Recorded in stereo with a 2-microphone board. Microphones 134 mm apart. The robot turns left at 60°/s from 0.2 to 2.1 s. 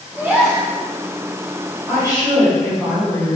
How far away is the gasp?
About 0.7 m.